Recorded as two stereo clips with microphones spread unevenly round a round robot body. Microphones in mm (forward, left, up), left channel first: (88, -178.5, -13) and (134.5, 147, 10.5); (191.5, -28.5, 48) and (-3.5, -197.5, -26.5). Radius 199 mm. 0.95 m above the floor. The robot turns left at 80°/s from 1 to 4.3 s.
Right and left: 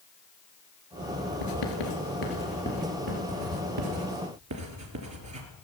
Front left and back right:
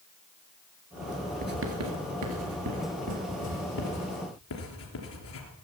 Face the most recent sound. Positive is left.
turn(degrees=50)